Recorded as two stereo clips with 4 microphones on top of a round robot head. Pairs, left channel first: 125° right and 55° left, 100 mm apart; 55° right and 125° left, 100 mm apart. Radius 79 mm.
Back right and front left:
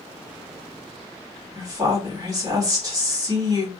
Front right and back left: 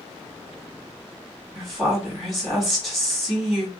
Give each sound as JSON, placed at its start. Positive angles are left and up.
{"t": 1.6, "sound": "a woman speaking", "azimuth_deg": 35, "distance_m": 1.5}